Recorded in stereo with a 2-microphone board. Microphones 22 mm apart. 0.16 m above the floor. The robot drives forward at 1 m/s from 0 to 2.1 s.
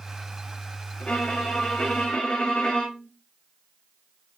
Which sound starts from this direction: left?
A violin, at 1.0 s.